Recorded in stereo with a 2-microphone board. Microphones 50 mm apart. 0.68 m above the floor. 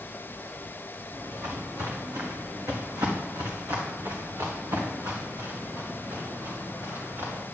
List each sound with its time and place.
1.1 s footsteps: 55° right (ahead or behind), 2.5 m; by 7.4 s 60° right (ahead or behind), 4.5 m